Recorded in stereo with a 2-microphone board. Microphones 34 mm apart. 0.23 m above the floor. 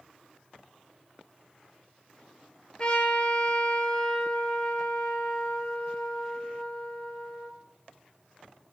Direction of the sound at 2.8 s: 30° left (ahead or behind).